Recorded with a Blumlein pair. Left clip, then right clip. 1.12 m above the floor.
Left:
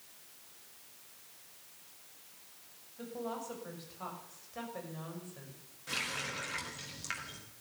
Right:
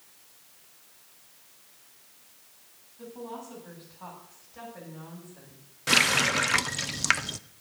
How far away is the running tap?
About 0.5 m.